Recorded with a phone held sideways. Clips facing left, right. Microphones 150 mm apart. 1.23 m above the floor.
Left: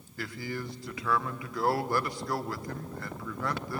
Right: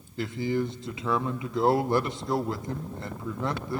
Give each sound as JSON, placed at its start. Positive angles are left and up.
{"t": 0.2, "sound": "a man speaking", "side_deg": -20, "distance_m": 1.0}